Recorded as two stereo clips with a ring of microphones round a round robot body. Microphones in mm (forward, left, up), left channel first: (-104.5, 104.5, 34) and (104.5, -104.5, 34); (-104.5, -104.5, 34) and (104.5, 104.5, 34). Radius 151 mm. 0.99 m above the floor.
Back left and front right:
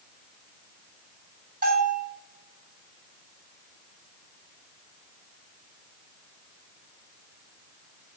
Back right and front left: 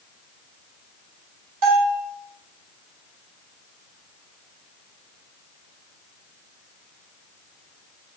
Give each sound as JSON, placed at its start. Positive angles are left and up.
{"t": 1.6, "sound": "a bell", "azimuth_deg": 20, "distance_m": 3.0}